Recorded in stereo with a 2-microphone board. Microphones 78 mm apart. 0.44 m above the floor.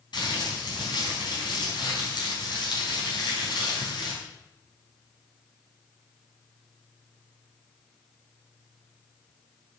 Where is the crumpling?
70° left (ahead or behind), 4.5 m.